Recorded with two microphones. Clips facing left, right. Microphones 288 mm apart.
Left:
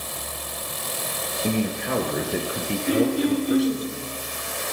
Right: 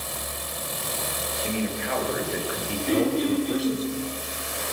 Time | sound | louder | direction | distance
1.4 | a man speaking | left 4 dB | 50° left (ahead or behind) | 3 m
2.9 | throat clearing | left 2 dB | 10° left (ahead or behind) | 6.5 m